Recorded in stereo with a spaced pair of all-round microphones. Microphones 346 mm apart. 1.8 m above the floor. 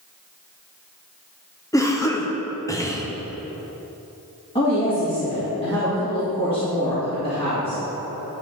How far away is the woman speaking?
About 2.5 m.